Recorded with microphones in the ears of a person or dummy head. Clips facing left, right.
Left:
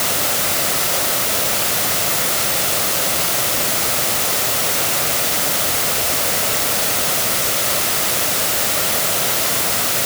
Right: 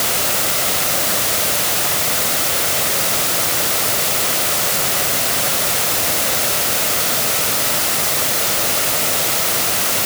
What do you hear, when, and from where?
Only background noise.